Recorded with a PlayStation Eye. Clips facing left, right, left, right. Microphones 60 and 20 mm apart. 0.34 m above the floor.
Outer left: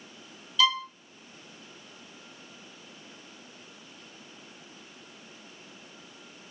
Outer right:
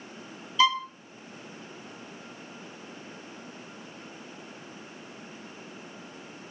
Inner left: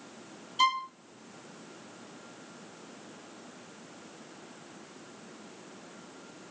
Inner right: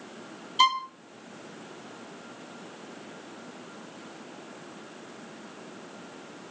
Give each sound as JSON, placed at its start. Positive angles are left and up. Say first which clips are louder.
{"t": 0.6, "sound": "a violin", "louder": "outer right 2 dB, inner right 4 dB", "side_deg": -30, "distance_m": 1.6}